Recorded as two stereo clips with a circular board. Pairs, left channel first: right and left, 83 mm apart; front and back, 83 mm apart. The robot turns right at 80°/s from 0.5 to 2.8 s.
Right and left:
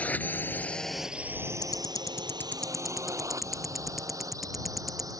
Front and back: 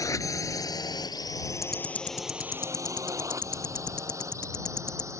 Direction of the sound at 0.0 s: 25° right.